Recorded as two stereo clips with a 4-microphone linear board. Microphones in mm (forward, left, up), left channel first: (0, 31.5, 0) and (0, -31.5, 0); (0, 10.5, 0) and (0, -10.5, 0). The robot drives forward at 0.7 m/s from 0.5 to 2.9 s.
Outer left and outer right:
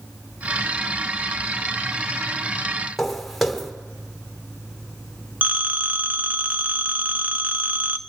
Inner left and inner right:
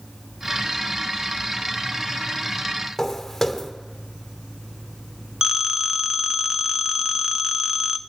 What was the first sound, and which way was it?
Footsteps, centre (ahead or behind).